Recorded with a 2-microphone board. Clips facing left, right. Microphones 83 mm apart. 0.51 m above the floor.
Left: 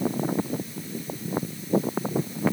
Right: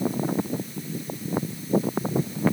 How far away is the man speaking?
I don't hear a man speaking.